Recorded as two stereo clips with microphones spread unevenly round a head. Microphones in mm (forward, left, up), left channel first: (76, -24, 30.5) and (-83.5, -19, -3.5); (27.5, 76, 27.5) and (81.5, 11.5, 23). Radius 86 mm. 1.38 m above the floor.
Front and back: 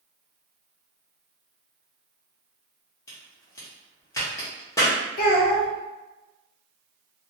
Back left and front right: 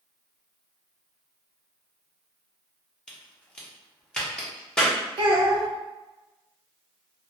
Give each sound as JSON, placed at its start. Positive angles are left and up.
{"t": 3.1, "sound": "a crack", "azimuth_deg": 55, "distance_m": 0.8}
{"t": 5.2, "sound": "a child speaking", "azimuth_deg": -30, "distance_m": 0.8}